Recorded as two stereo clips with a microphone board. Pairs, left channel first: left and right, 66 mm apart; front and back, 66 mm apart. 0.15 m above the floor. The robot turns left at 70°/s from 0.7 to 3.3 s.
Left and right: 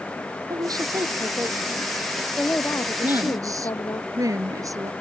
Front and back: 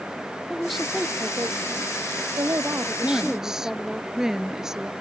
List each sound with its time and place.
0.5 s a woman speaking: 90° right; by 4.0 s 90° left
3.0 s a woman speaking: 80° right; by 4.9 s 100° right